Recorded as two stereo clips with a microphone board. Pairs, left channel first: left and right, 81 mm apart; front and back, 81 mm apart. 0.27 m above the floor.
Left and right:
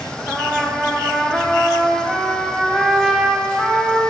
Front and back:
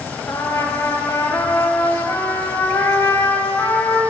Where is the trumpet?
5° left, 1.0 m.